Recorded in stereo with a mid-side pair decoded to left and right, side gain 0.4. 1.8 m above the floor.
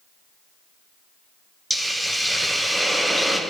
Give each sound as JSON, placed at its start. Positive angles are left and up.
{"t": 1.7, "sound": "a hiss", "azimuth_deg": -5, "distance_m": 0.7}